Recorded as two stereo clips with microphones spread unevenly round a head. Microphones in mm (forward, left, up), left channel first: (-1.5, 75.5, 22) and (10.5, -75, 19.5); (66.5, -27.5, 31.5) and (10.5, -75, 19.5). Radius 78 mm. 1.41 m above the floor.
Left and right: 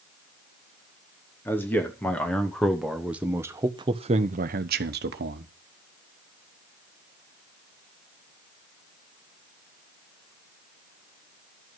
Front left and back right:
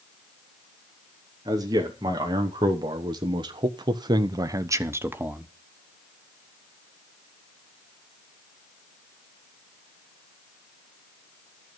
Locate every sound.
1.4 s a man speaking: 175° left, 2.5 m; by 5.5 s 70° right, 1.4 m